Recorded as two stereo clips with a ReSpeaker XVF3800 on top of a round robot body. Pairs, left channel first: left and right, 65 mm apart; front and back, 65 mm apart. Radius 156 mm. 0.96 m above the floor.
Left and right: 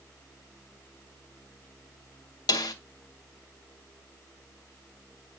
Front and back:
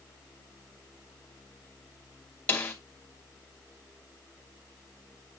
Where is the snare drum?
70° left, 1.9 m.